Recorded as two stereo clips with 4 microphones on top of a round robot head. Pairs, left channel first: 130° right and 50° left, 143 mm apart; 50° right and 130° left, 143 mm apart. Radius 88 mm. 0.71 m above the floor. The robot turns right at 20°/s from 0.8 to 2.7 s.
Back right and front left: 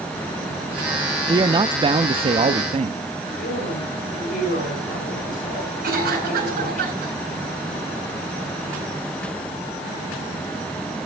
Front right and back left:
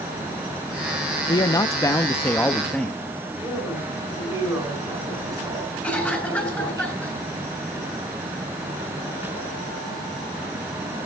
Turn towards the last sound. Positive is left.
turn(degrees=30)